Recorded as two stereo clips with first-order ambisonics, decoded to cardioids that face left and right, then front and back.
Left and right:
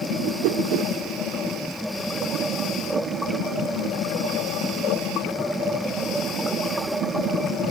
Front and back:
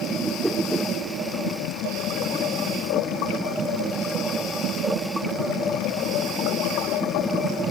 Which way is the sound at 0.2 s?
95° right.